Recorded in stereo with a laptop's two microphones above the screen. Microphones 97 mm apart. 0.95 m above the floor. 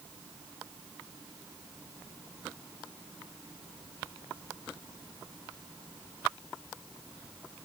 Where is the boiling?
I don't hear boiling.